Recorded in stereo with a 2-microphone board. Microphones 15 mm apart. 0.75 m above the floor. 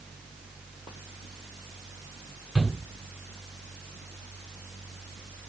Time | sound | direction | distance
2.5 | a shout | 10° right (ahead or behind) | 6.5 m